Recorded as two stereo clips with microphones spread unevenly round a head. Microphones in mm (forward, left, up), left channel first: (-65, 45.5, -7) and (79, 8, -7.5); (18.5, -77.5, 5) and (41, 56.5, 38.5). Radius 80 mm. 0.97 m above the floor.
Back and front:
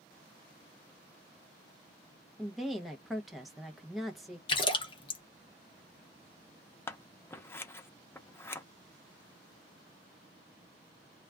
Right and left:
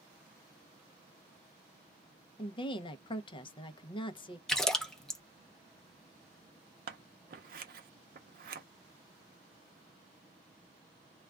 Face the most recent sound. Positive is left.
turn(degrees=90)